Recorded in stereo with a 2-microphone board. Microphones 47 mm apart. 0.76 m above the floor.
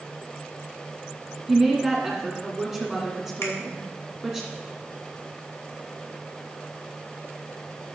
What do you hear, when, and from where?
1.5 s a woman speaking: centre (ahead or behind), 1.8 m
3.4 s a finger snap: 70° left (ahead or behind), 2 m